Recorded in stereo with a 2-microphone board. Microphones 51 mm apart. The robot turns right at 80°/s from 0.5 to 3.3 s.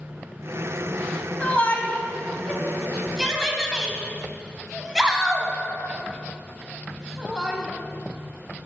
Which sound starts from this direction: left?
A shout, at 1.4 s.